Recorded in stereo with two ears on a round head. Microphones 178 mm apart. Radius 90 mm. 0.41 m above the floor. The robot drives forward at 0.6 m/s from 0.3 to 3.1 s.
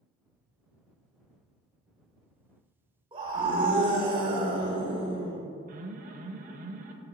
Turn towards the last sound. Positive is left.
turn(degrees=-45)  # may be behind; listen again after turning